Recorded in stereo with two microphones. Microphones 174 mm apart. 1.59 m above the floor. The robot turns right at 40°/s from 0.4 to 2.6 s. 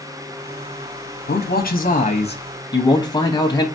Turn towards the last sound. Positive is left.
turn(degrees=150)